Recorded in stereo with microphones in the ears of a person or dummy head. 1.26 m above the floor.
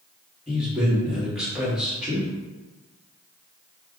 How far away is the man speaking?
About 1.9 m.